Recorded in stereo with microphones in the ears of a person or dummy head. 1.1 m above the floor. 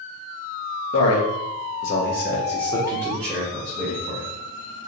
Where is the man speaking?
70° left (ahead or behind), 1.3 m; by 4.3 s 20° right (ahead or behind), 1.7 m.